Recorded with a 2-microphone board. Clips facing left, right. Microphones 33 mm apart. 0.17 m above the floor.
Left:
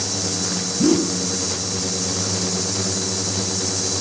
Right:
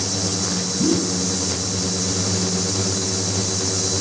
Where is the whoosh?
45° left (ahead or behind), 1.2 m.